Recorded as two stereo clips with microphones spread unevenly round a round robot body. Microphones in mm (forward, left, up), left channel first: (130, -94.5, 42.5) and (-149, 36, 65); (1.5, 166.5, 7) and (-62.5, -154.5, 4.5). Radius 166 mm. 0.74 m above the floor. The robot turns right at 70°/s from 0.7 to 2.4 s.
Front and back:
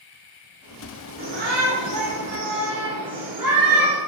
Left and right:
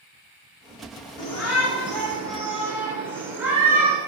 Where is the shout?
90° left, 2.5 m; by 4.0 s 175° left, 2.5 m.